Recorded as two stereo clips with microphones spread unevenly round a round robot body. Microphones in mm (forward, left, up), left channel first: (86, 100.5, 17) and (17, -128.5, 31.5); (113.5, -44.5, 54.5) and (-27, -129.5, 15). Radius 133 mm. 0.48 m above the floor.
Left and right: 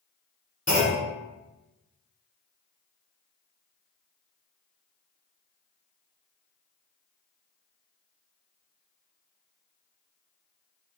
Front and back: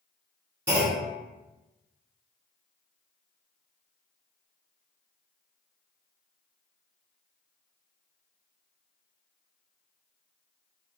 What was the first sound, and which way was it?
A clunk, 155° left.